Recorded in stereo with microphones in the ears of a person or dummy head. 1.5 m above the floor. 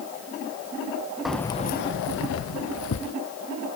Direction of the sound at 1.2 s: Centre (ahead or behind).